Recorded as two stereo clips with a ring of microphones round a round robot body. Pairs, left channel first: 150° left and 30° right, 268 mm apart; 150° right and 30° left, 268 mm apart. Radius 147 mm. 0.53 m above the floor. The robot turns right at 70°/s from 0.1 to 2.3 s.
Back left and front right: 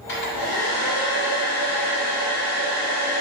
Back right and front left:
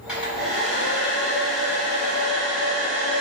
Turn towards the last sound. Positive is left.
turn(degrees=-90)